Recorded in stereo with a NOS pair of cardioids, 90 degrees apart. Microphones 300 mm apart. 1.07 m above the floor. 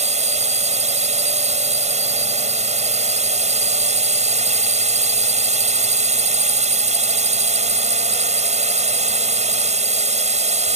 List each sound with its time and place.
0.0 s a drone: 20° right